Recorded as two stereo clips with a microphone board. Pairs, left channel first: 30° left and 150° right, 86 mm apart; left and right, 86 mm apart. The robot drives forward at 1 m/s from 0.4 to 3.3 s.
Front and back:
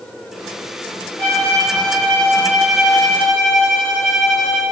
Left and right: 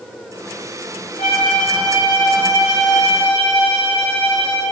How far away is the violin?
About 4.5 m.